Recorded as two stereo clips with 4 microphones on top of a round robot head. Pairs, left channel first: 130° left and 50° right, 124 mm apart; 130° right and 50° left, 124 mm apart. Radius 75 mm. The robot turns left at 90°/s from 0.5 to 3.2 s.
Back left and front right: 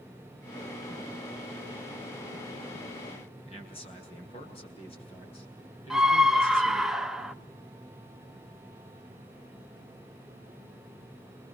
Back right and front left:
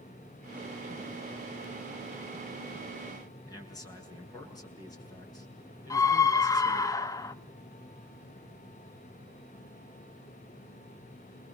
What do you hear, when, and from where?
3.5 s a man speaking: 170° left, 7 m
5.9 s a scream: 135° right, 0.8 m